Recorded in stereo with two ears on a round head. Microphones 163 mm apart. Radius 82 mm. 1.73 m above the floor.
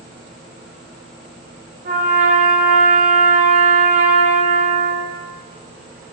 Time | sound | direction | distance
1.9 | a trumpet | 45° right (ahead or behind) | 0.6 m